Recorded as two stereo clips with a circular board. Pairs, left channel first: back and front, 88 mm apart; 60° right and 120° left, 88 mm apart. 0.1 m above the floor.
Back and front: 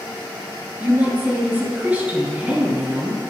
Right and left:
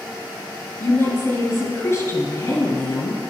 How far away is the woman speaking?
About 1.7 m.